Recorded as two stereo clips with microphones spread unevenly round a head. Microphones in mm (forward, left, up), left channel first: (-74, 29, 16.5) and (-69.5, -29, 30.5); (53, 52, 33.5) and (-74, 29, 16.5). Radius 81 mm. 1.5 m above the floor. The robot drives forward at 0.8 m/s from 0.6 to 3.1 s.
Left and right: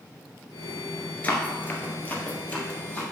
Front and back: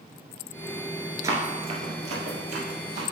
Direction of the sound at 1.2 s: 145° left.